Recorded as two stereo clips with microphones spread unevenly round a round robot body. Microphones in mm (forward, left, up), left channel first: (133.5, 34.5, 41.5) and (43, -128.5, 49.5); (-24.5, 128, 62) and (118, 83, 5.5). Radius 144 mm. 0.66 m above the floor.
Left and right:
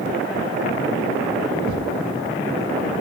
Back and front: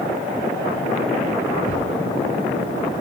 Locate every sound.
1.7 s a thud: 150° right, 1.2 m